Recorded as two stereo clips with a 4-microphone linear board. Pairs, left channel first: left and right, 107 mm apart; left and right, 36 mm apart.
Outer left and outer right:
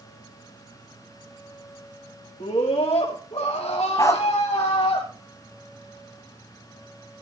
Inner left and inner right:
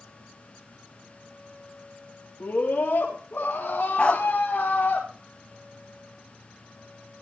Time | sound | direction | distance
2.4 | a scream | 70° left (ahead or behind) | 4.5 m
4.0 | a dog barking | 30° left (ahead or behind) | 0.9 m